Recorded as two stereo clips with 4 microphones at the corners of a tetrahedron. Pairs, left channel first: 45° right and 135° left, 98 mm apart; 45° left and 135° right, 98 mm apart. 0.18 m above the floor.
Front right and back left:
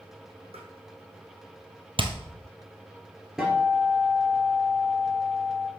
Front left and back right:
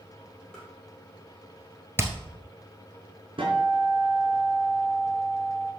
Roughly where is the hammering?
Behind.